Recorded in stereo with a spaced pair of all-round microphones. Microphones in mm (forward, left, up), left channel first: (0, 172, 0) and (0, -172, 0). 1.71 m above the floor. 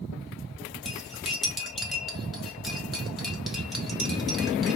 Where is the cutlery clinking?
Centre (ahead or behind), 1.4 m.